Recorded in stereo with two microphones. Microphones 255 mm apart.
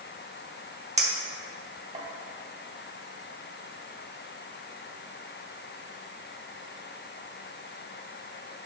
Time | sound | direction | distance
1.0 | a clink | 25° right (ahead or behind) | 0.6 m